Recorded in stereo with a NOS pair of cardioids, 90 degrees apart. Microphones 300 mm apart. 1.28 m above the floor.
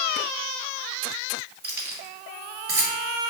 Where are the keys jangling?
35° right, 1.5 m.